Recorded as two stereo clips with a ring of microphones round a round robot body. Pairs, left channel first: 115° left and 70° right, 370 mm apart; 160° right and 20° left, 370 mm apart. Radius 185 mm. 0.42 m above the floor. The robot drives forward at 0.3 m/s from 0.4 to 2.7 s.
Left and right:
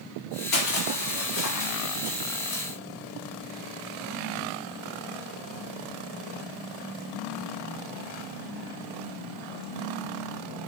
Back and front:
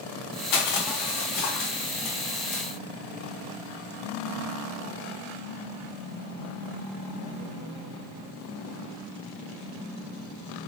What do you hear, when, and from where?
0.5 s crushing: 175° left, 1.8 m